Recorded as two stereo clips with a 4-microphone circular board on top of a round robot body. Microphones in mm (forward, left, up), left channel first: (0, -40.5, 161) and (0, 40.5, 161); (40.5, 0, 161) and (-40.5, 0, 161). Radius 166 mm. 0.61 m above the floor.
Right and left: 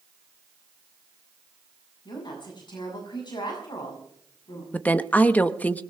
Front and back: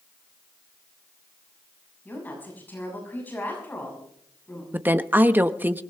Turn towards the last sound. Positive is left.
turn(degrees=-140)